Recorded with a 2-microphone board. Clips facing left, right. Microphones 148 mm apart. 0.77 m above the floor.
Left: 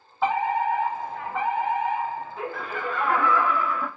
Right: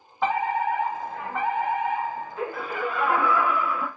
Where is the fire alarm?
Centre (ahead or behind), 1.5 m.